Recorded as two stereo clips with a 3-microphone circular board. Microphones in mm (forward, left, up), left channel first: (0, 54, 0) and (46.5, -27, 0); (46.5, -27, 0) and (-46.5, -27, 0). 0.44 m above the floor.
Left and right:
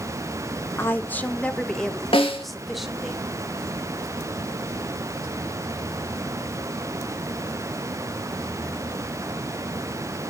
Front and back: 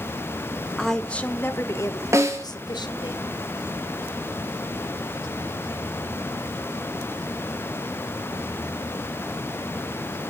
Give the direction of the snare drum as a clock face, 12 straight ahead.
8 o'clock.